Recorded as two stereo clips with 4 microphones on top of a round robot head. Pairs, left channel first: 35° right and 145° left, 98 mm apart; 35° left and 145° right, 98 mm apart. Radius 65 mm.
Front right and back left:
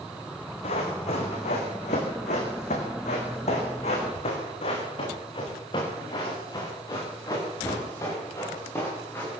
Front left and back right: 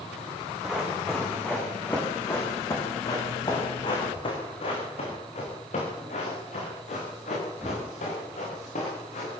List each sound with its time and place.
0.6 s running footsteps: 55° right, 7 m; by 9.3 s 35° left, 12 m